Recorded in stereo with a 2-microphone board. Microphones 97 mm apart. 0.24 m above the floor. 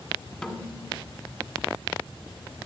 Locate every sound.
0.4 s a snare drum: 10° left (ahead or behind), 1.7 m